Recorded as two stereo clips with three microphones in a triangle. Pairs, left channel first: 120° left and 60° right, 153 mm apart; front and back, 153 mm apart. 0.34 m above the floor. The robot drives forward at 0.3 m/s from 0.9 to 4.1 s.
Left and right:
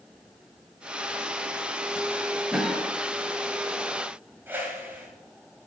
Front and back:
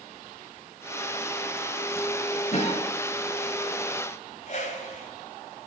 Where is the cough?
25° left, 1.6 m; by 2.8 s 30° left, 1.6 m.